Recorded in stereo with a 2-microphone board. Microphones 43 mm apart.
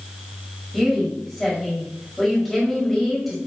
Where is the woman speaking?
5° left (ahead or behind), 1.8 m.